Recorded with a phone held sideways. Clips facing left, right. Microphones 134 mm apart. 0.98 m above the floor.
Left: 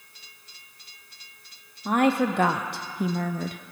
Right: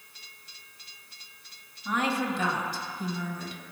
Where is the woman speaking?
55° left (ahead or behind), 1.2 m.